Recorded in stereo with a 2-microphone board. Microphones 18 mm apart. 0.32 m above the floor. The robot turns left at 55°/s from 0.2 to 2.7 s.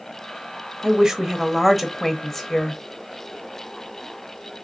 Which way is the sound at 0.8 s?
125° right.